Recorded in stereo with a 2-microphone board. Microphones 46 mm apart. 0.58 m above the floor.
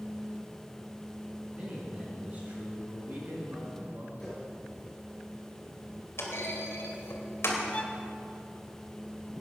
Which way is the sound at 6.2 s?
70° left (ahead or behind).